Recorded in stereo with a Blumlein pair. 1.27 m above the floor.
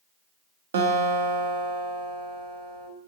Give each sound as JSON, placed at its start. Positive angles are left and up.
{"t": 0.7, "sound": "a guitar", "azimuth_deg": -60, "distance_m": 0.7}